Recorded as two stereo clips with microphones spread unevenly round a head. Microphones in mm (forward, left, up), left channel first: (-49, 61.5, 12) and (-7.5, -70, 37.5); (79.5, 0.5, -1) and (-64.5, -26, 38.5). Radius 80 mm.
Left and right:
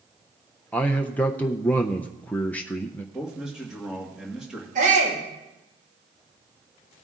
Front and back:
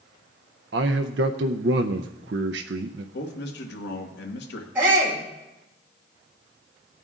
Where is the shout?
90° right, 5.5 m.